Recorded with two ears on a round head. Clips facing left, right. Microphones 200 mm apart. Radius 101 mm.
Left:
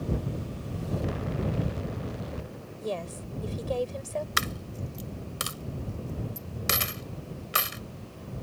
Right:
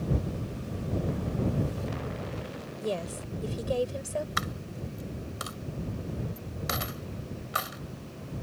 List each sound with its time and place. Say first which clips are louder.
2.8 s a woman speaking: right 1 dB; 10° right (ahead or behind)
4.4 s a dropped coin: left 1 dB; 35° left (ahead or behind)